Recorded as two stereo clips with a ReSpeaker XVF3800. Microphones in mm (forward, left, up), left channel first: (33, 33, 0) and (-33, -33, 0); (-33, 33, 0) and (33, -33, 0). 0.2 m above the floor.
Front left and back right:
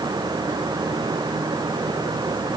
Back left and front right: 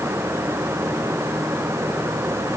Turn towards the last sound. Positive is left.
No sound to turn to.